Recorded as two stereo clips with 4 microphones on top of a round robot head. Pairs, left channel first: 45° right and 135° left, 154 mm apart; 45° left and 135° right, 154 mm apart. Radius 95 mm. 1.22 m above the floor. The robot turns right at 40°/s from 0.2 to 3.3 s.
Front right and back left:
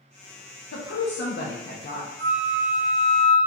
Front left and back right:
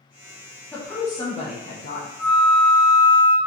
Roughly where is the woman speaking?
Ahead right.